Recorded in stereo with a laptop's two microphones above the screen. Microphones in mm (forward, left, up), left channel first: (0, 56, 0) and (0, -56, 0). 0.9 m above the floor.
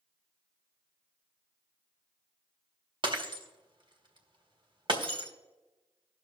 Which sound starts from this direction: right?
Breaking glass, at 3.0 s.